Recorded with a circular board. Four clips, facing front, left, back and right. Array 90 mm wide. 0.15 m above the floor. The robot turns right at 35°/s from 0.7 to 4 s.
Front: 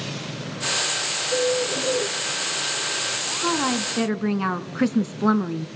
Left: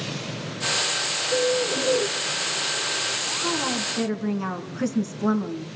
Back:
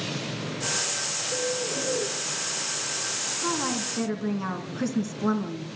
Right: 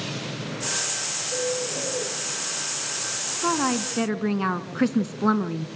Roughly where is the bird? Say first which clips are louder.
Left 5 dB, front 7 dB; ahead left.